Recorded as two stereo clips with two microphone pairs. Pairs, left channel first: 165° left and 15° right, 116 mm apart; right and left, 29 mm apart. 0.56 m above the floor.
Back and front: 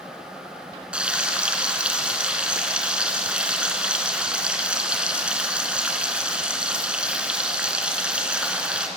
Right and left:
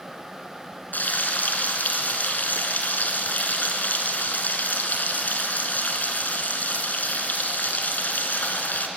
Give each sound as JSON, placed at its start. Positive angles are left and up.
{"t": 0.9, "sound": "frying", "azimuth_deg": -95, "distance_m": 3.0}